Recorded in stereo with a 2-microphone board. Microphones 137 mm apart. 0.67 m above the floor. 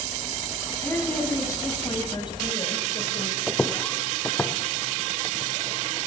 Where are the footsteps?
5° left (ahead or behind), 1.5 m; by 5.5 s 20° left (ahead or behind), 2.5 m.